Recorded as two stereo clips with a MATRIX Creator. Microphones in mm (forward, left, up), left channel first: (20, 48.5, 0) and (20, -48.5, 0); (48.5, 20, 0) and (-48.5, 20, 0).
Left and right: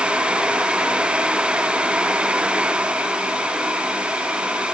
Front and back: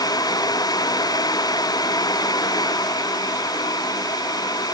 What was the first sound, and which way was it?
Only background noise.